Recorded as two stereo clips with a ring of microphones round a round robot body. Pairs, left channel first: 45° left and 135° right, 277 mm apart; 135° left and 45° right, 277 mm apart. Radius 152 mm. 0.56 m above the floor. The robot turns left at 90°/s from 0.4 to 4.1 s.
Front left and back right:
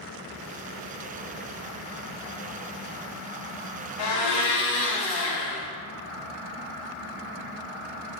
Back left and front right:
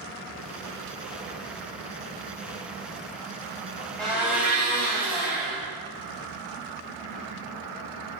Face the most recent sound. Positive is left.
turn(degrees=40)